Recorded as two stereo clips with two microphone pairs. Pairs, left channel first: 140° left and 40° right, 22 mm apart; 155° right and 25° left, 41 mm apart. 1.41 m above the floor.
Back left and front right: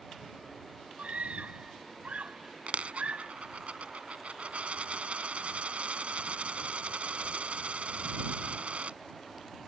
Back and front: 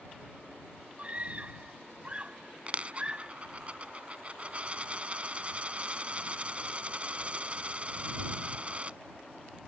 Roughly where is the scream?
Ahead right.